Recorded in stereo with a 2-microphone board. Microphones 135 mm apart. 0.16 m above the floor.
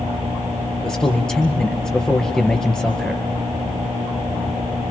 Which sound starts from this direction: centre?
A man speaking, at 0.8 s.